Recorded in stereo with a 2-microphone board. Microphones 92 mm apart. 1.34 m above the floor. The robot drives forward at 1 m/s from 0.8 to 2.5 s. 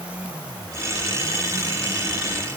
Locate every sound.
Only background noise.